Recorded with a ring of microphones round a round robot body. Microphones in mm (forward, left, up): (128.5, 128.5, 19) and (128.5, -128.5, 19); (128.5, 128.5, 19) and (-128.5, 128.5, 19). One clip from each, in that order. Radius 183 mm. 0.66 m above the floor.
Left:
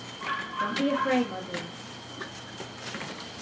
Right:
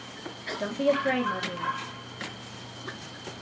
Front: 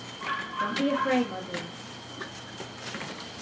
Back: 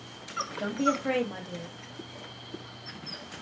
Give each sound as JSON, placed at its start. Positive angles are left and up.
{"t": 0.6, "sound": "a woman speaking", "azimuth_deg": -140, "distance_m": 0.8}